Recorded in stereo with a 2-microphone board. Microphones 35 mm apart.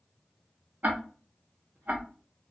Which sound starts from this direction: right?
Ticking, at 0.8 s.